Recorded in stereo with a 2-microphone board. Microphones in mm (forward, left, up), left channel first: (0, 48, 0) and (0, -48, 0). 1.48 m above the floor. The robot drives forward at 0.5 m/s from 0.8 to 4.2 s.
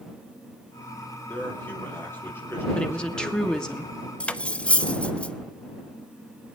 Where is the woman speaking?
10° left (ahead or behind), 1.4 m.